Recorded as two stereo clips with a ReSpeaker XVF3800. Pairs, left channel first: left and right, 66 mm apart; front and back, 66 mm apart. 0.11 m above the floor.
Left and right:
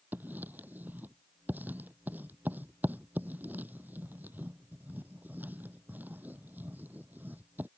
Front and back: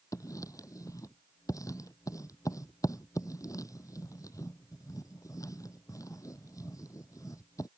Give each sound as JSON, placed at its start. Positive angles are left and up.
{"t": 0.1, "sound": "writing", "azimuth_deg": -30}